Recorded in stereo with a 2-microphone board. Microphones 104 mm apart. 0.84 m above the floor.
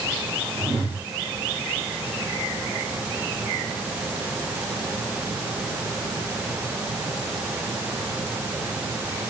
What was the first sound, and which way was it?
A whoosh, 65° right (ahead or behind).